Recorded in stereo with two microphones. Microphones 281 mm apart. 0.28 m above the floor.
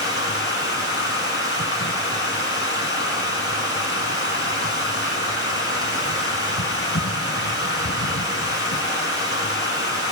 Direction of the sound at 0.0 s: 50° left (ahead or behind).